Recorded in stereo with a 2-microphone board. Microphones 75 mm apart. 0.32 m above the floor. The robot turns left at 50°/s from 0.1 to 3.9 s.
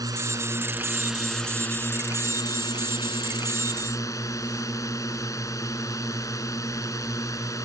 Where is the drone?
120° right; by 7.7 s 50° left.